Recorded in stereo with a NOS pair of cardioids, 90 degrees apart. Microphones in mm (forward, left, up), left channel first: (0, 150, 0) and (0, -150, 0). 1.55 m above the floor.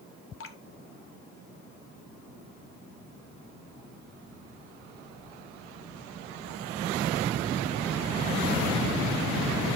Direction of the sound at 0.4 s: 45° left.